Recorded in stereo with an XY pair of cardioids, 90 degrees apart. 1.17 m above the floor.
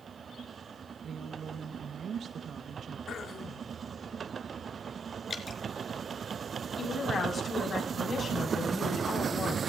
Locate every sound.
1.0 s a woman speaking: 65° right, 2 m
3.1 s throat clearing: 60° left, 2 m
5.3 s dripping: 40° left, 3.5 m
6.8 s a woman speaking: 45° left, 7.5 m